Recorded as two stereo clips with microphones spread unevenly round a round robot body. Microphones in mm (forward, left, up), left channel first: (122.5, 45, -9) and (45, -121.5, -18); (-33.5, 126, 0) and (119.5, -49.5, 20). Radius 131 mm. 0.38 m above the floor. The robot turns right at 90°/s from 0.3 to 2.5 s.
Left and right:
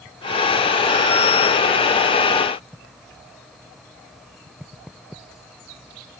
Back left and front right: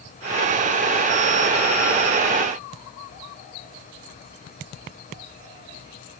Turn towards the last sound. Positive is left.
No sound to turn to.